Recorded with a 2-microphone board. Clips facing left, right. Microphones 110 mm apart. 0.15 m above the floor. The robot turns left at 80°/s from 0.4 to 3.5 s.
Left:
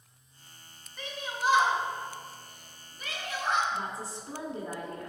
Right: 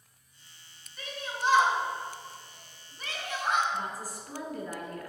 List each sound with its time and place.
1.0 s a shout: 25° left (ahead or behind), 1.9 m; by 3.6 s 15° right (ahead or behind), 1.9 m
3.7 s a woman speaking: 25° left (ahead or behind), 1.5 m